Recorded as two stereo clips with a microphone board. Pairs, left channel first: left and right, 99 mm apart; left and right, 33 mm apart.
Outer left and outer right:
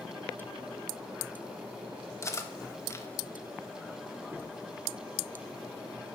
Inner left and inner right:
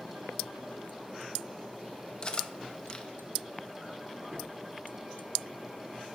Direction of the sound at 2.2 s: 30° left (ahead or behind).